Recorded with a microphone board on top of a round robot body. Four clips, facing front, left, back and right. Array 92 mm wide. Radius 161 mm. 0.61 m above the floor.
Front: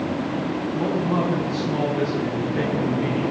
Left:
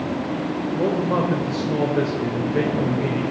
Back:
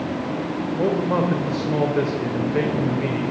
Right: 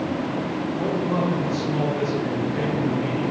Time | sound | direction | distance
0.8 | a man speaking | 145° left | 2.5 m